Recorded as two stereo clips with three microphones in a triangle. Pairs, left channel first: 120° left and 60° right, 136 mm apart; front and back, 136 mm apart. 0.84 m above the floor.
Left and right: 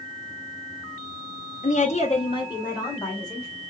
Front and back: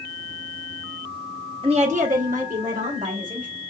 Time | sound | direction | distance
1.6 | a woman speaking | 130° left | 0.7 m